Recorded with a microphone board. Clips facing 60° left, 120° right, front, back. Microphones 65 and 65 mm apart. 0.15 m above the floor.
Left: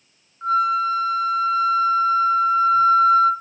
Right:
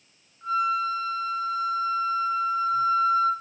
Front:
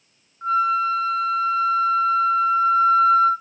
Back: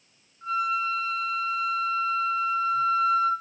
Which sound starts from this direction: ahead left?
A flute, at 0.4 s.